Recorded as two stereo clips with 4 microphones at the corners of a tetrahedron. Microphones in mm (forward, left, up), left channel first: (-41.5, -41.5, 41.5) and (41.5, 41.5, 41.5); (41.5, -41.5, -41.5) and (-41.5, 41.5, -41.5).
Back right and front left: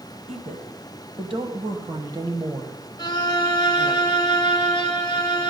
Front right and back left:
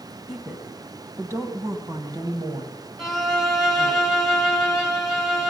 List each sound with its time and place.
0.3 s a woman speaking: 50° left, 1.9 m; by 4.0 s 135° left, 1.7 m
3.0 s a violin: 135° right, 1.7 m